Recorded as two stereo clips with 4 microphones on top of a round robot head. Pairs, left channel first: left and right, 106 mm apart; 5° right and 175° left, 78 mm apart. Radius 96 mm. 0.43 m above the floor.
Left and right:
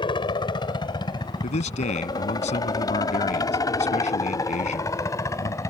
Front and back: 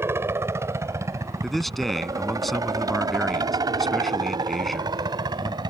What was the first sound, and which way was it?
A helicopter, 120° left.